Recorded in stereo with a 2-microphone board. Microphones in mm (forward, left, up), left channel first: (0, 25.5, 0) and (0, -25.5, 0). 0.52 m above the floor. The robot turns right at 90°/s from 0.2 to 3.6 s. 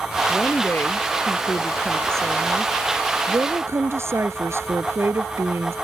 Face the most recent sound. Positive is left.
turn(degrees=-60)